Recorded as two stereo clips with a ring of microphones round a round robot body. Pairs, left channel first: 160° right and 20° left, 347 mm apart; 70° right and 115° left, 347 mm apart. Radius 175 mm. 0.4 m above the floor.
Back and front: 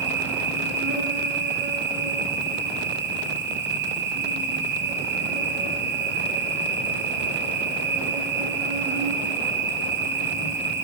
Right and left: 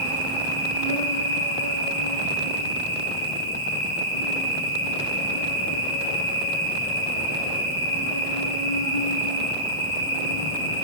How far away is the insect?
About 6.5 m.